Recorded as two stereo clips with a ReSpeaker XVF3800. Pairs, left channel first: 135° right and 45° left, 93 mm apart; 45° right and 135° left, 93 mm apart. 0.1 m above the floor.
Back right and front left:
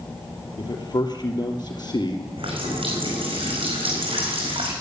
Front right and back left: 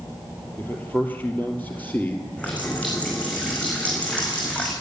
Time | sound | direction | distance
0.6 | a man speaking | 110° right | 2.5 m
2.4 | a running tap | 30° left | 5 m